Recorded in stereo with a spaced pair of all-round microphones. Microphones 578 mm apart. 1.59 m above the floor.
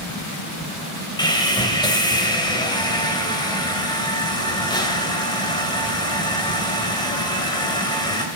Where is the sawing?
10° left (ahead or behind), 3 m.